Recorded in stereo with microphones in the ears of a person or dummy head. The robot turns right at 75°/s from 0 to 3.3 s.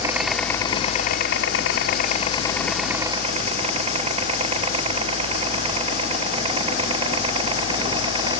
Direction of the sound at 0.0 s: 20° right (ahead or behind).